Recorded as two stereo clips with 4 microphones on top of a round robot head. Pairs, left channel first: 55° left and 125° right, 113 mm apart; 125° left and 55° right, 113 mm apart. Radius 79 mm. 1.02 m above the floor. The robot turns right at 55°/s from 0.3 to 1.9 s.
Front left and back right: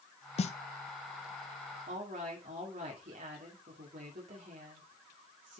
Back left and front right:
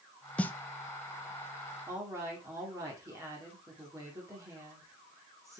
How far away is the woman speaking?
About 2.5 m.